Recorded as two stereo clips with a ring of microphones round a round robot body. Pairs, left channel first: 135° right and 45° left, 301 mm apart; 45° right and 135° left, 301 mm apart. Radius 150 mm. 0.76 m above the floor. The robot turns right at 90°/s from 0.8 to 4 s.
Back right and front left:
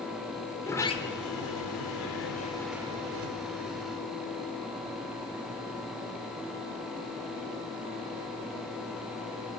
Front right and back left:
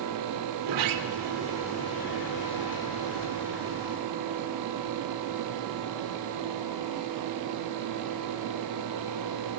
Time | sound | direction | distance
0.6 | a sliding door | 145° left | 2.5 m